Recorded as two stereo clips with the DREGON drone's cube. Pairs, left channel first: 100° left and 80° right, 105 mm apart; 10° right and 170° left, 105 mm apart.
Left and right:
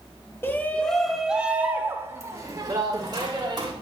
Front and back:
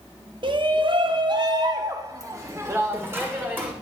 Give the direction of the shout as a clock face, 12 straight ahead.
7 o'clock.